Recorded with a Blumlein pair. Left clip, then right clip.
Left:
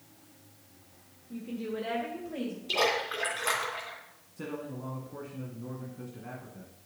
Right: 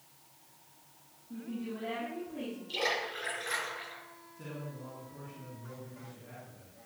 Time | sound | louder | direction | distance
1.3 | a woman speaking | left 5 dB | 65° left | 1.7 m
2.7 | a splash | left 5 dB | 45° left | 3 m
4.4 | a man speaking | left 7 dB | 35° left | 1.8 m